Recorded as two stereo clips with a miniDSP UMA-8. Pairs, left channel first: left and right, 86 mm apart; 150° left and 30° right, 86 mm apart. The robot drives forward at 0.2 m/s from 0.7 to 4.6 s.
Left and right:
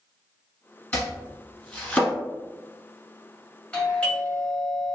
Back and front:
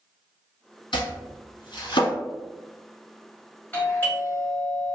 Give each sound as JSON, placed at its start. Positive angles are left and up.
{"t": 0.9, "sound": "chopping", "azimuth_deg": 165, "distance_m": 1.3}
{"t": 3.7, "sound": "a doorbell", "azimuth_deg": 145, "distance_m": 1.5}